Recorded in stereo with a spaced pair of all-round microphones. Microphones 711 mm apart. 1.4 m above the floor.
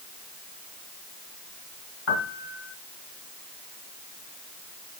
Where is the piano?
45° left (ahead or behind), 2 m.